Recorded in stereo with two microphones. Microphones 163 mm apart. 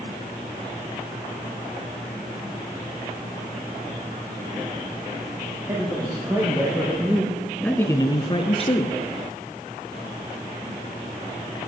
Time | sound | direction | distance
5.7 | a man speaking | 25° right (ahead or behind) | 3.5 m